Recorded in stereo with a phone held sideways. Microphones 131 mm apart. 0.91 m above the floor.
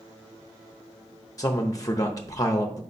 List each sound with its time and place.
1.4 s a man speaking: 30° left (ahead or behind), 0.7 m